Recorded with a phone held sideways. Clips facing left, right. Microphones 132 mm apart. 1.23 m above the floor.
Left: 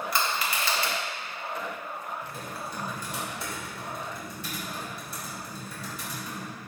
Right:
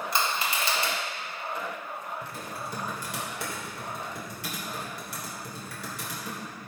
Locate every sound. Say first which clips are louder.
0.1 s crushing: right 1 dB; 25° right (ahead or behind), 1.8 m
2.2 s typing on a keyboard: even; 75° right (ahead or behind), 2.5 m